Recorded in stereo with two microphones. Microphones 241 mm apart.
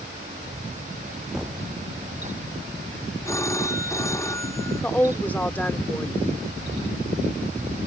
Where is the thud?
5° right (ahead or behind).